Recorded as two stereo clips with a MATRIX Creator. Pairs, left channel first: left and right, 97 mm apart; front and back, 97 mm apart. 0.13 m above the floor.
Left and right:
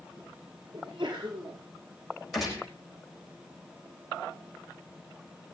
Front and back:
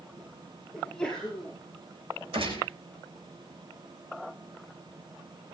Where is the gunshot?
Straight behind, 6.5 m.